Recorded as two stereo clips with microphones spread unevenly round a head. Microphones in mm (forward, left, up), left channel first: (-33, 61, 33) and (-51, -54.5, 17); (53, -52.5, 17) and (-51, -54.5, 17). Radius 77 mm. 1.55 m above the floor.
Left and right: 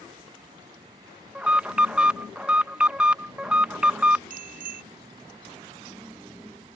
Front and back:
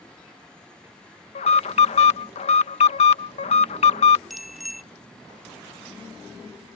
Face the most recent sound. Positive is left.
turn(degrees=-90)